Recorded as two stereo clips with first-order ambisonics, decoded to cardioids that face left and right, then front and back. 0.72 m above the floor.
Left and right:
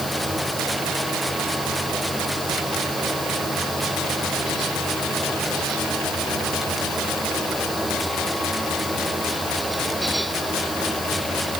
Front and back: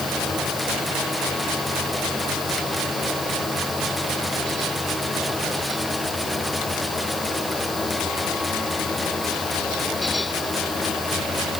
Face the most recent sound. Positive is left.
No sound to turn to.